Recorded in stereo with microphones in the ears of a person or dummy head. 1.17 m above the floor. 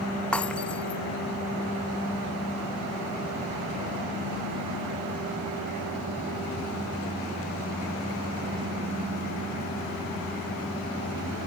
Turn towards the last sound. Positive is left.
turn(degrees=5)  # may be behind; listen again after turning